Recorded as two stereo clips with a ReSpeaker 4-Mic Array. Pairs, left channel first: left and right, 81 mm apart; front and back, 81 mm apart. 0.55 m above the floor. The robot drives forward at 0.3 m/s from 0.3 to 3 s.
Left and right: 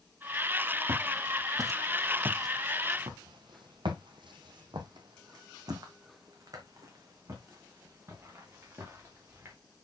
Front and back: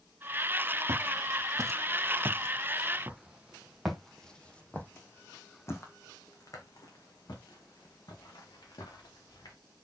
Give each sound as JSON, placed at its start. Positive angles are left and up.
{"t": 0.9, "sound": "footsteps", "azimuth_deg": -140, "distance_m": 1.5}